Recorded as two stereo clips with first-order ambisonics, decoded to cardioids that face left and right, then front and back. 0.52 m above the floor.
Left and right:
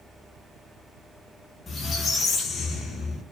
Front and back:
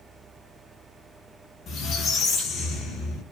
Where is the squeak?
30° left, 0.6 m.